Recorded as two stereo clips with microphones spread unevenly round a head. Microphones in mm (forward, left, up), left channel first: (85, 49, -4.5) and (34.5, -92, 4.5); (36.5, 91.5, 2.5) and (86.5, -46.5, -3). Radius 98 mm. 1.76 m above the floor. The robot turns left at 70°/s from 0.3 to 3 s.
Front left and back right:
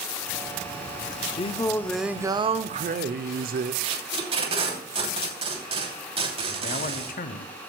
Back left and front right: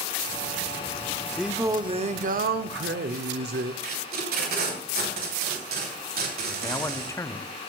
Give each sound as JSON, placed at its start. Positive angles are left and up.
{"t": 1.4, "sound": "singing", "azimuth_deg": 20, "distance_m": 0.7}
{"t": 3.8, "sound": "tape being pulled", "azimuth_deg": -60, "distance_m": 3.0}
{"t": 6.6, "sound": "a man speaking", "azimuth_deg": 40, "distance_m": 0.8}